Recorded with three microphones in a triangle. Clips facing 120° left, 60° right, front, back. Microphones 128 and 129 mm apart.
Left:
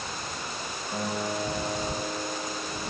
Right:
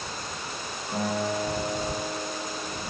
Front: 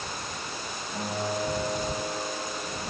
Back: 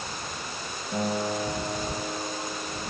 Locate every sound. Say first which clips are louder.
0.9 s a guitar: right 3 dB, back 3 dB; 145° right, 6.5 m